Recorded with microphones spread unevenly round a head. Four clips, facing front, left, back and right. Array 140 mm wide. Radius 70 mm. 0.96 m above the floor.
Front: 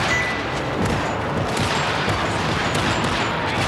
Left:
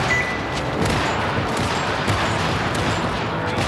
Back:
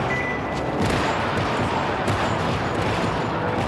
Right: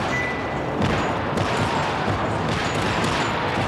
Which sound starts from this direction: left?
A microwave, at 0.1 s.